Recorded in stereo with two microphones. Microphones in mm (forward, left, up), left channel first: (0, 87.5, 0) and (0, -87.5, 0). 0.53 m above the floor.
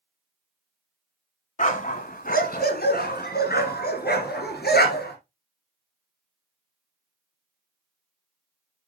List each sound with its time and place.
1.6 s a dog barking: 50° left (ahead or behind), 1.0 m; by 5.2 s 85° left, 2.5 m